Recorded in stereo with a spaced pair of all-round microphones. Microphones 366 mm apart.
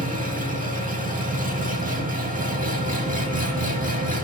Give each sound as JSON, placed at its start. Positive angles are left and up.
{"t": 0.0, "sound": "an engine running", "side_deg": -20, "distance_m": 1.6}